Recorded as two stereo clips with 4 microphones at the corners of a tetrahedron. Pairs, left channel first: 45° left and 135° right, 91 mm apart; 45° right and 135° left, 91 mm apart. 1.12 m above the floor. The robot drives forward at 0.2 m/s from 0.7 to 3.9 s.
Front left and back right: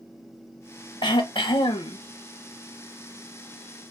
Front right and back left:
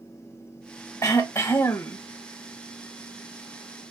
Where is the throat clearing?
10° left, 0.9 m; by 2.0 s 15° left, 0.7 m.